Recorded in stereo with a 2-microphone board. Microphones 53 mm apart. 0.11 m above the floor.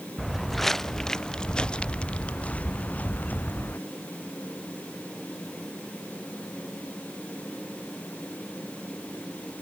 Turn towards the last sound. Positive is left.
turn(degrees=30)  # may be behind; listen again after turning